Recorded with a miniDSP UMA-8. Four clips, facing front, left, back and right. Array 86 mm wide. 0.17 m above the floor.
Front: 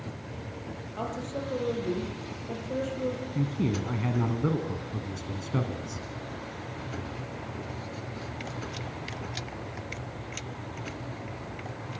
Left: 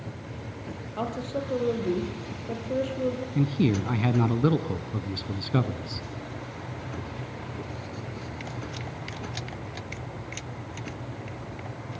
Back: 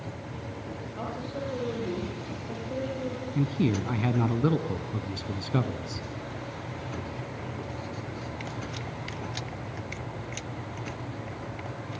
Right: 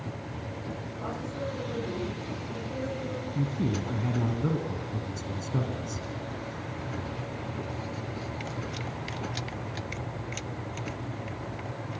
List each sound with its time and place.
1.0 s a woman speaking: 80° left, 6 m
3.4 s a man speaking: 110° left, 1.4 m